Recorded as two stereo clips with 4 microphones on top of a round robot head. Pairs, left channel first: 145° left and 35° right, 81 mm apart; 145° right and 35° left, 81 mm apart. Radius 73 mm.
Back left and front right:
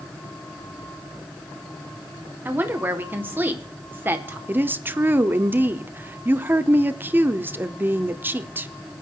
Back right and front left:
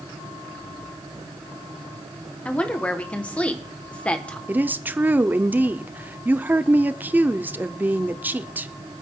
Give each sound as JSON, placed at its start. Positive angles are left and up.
{"t": 2.5, "sound": "a woman speaking", "azimuth_deg": -80, "distance_m": 1.3}
{"t": 4.5, "sound": "a woman speaking", "azimuth_deg": -5, "distance_m": 0.9}